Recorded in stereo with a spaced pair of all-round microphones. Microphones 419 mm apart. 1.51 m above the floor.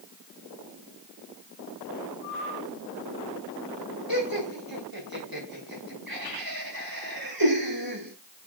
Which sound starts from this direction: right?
Laughter, at 4.1 s.